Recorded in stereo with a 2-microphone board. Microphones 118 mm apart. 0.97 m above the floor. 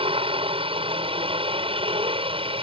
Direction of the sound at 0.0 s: 50° right (ahead or behind).